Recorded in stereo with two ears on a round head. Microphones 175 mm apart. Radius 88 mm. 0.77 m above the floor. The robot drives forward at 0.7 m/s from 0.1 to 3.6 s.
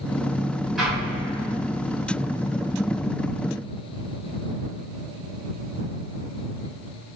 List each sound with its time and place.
0.8 s an explosion: centre (ahead or behind), 1.8 m